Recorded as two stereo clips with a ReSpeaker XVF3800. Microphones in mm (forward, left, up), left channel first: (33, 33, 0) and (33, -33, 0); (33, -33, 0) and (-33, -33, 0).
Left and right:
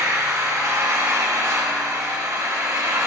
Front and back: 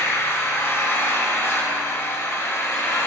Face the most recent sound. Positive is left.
turn(degrees=-50)